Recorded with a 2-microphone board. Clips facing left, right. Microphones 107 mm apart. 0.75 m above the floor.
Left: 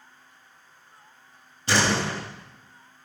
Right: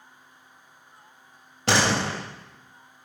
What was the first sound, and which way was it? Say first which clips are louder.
A door slam: right 1 dB; 75° right (ahead or behind).